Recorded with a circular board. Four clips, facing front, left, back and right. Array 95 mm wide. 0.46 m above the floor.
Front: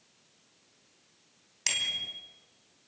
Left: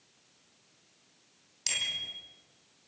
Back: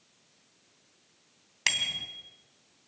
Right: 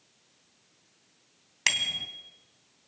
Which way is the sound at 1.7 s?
115° right.